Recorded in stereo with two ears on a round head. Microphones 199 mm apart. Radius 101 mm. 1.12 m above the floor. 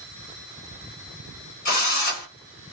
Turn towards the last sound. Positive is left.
turn(degrees=40)  # may be behind; listen again after turning